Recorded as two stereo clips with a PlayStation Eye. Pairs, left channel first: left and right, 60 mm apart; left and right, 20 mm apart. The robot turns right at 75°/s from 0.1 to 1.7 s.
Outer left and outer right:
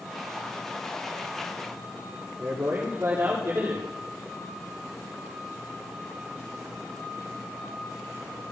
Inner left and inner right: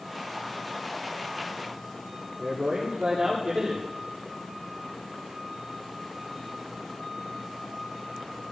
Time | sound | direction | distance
2.4 | a man speaking | 50° right (ahead or behind) | 7.5 m